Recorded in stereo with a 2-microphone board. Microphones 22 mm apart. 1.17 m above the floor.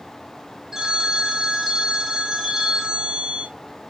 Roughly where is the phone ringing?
Centre.